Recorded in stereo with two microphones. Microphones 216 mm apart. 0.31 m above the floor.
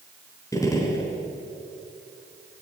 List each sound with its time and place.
0.5 s a gunshot: 15° left (ahead or behind), 4 m